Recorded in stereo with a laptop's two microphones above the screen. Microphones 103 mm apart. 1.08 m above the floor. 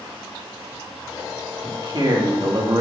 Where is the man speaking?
50° right (ahead or behind), 2.5 m; by 2.8 s 40° right (ahead or behind), 1.4 m.